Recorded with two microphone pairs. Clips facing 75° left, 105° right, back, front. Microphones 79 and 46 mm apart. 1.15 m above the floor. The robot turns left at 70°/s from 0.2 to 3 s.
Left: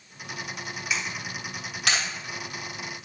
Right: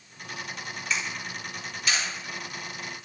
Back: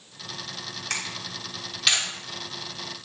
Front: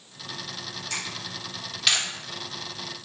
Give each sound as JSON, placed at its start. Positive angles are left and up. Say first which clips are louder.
{"t": 0.9, "sound": "a camera shutter", "louder": "even, back 2 dB", "azimuth_deg": 160, "distance_m": 3.0}